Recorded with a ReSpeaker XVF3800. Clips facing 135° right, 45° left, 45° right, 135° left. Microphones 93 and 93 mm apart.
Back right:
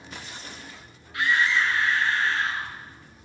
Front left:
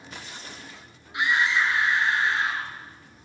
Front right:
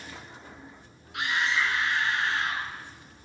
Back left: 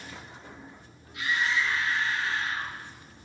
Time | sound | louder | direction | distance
1.1 | a scream | even, front right 1 dB | 25° right | 6 m